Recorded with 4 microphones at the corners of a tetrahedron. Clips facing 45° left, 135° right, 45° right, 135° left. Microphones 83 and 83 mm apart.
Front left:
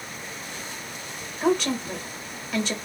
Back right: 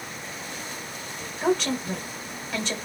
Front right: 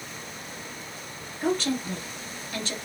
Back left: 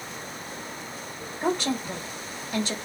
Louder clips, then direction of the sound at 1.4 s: Front left 1 dB, even; 120° left.